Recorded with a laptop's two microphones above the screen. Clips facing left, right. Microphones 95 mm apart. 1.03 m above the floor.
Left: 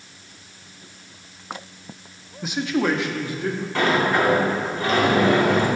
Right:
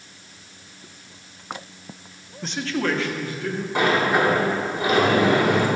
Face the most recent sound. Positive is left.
turn(degrees=-15)  # may be behind; listen again after turning